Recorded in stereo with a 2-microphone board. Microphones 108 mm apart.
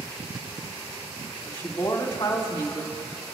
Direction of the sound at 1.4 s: 45° left (ahead or behind).